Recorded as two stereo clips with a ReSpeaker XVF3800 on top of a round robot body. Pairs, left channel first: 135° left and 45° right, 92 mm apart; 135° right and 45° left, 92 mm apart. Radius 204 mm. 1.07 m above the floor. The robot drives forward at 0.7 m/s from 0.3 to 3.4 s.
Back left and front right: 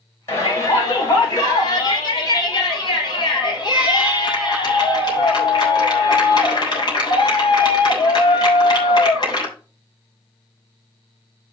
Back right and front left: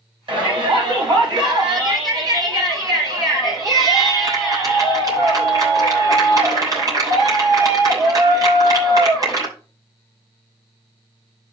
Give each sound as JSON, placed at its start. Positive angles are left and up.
{"t": 0.3, "sound": "a shout", "azimuth_deg": 75, "distance_m": 6.5}